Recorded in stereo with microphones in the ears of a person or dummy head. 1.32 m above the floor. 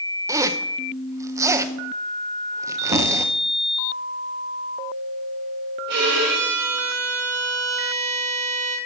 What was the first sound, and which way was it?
A zipper, 15° right (ahead or behind).